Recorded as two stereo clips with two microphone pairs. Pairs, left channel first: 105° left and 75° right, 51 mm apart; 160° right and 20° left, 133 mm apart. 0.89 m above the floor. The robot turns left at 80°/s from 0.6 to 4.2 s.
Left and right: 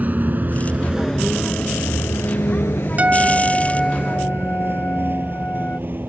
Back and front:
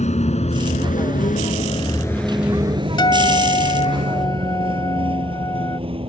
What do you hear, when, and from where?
0.0 s a vehicle: 130° right; by 6.1 s 30° right
3.0 s a guitar: 115° right; by 5.8 s 145° left